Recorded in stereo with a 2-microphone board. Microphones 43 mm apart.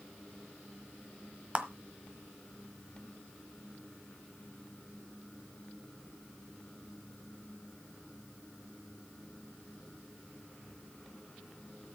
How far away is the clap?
About 1.2 m.